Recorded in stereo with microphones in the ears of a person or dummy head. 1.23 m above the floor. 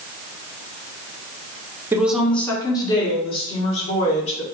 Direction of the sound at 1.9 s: 10° right (ahead or behind).